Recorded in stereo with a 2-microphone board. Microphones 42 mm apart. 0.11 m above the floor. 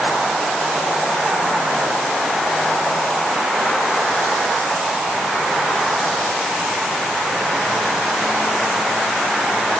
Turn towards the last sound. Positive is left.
No sound to turn to.